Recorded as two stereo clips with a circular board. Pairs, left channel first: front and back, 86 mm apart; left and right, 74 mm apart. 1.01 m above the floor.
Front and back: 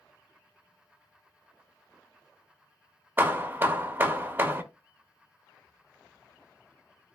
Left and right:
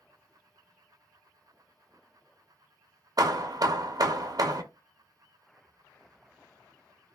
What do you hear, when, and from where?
3.2 s hammering: 115° right, 0.5 m